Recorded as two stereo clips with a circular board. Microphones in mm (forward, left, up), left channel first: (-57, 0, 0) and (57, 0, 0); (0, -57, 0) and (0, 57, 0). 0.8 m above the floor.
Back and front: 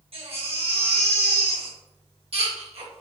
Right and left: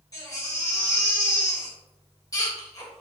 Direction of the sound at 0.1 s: 30° right.